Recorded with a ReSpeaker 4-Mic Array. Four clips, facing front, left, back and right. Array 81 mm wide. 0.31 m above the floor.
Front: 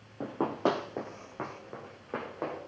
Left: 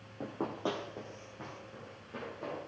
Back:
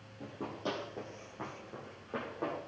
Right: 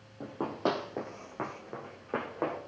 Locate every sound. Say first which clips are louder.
0.2 s running footsteps: right 4 dB, front 10 dB; 10° left, 0.7 m; by 2.6 s 70° right, 2 m